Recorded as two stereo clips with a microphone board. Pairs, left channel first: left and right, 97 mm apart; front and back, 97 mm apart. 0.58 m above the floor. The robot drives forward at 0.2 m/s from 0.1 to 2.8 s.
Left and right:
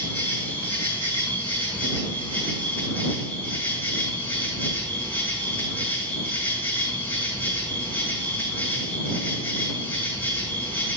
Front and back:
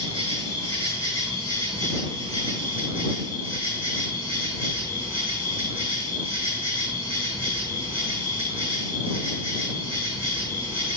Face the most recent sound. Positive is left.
turn(degrees=160)